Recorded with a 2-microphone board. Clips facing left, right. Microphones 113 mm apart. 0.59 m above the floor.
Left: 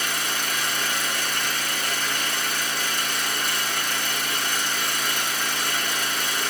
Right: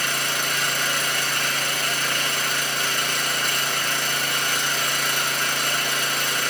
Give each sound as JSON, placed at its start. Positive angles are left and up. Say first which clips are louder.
{"t": 0.0, "sound": "an engine running", "louder": "right 2 dB", "side_deg": -65, "distance_m": 3.0}